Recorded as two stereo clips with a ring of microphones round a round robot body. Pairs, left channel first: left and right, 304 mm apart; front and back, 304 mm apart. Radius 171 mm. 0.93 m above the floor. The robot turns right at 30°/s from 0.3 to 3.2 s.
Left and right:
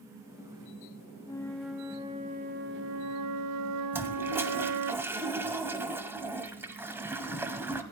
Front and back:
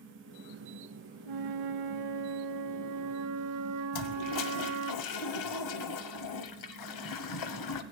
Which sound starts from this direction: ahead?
A toilet flushing, at 3.9 s.